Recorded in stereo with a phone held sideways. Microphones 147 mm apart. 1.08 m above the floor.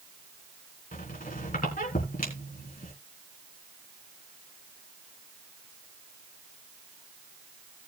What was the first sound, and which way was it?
A squeak, 70° left (ahead or behind).